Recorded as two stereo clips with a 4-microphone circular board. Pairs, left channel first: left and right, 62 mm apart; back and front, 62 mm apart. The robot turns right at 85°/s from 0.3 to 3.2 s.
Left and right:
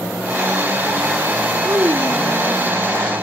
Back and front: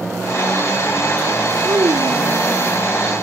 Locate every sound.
1.6 s a child speaking: 45° right; by 2.6 s 40° left